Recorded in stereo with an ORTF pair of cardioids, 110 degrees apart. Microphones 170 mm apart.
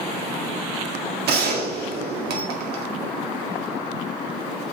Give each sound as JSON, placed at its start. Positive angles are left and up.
{"t": 1.3, "sound": "a gunshot", "azimuth_deg": -70, "distance_m": 1.8}